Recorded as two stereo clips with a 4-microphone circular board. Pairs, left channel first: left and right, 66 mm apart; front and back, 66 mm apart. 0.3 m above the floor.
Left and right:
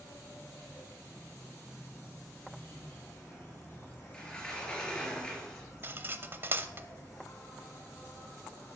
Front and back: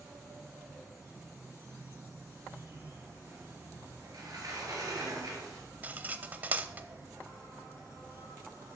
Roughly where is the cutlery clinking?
Behind right.